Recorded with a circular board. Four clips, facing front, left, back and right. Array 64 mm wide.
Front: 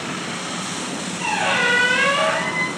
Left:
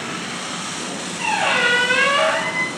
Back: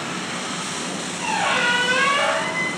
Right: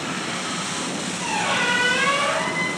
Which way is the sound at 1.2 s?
85° left.